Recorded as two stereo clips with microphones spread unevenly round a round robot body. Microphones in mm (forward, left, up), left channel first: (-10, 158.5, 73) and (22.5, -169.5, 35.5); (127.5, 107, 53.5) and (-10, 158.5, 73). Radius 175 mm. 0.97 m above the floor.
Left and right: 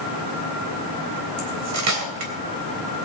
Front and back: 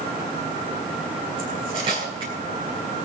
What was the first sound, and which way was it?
Cutlery clinking, 130° right.